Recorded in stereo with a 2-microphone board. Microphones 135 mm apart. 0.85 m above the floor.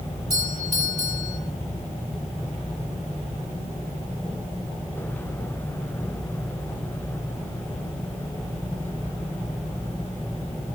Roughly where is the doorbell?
Left.